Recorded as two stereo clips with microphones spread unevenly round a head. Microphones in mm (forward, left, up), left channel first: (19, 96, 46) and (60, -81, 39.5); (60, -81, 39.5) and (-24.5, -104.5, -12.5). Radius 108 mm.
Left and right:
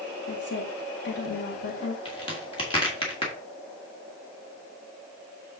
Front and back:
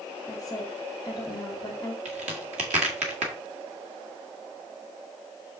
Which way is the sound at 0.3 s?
80° left.